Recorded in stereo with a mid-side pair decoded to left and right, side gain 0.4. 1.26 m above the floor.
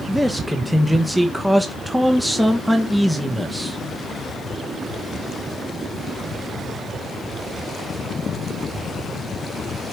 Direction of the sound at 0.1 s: 5° right.